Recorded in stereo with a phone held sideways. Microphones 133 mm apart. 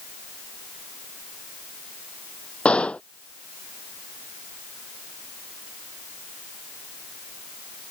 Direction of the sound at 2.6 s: 10° left (ahead or behind).